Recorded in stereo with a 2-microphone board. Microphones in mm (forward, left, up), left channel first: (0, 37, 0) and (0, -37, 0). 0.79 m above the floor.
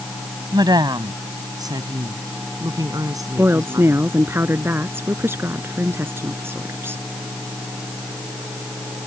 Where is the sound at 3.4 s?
30° right (ahead or behind).